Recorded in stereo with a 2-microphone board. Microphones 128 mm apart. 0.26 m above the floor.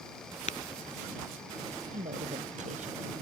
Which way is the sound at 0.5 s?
70° left (ahead or behind).